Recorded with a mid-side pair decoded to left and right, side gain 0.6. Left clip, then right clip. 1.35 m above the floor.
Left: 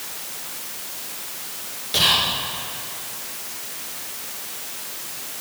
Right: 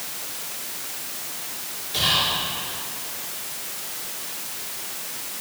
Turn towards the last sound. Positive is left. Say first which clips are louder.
# left 3 dB
turn(degrees=65)